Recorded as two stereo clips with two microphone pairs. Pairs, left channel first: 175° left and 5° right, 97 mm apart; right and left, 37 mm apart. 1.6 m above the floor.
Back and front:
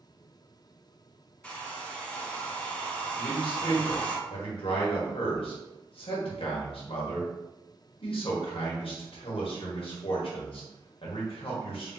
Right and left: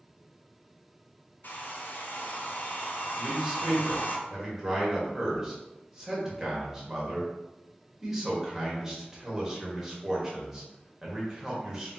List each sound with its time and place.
1.4 s a hair dryer: 110° right, 0.9 m
3.2 s a man speaking: 170° left, 1.5 m